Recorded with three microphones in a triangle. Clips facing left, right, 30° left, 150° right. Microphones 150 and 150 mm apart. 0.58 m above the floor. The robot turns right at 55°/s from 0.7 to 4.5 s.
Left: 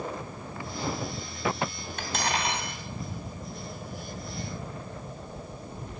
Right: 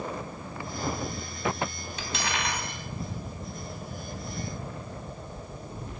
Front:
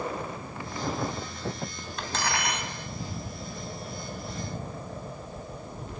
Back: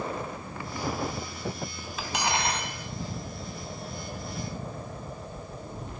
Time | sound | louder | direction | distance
2.0 | cutlery clinking | left 3 dB, back 2 dB | 125° left | 2.5 m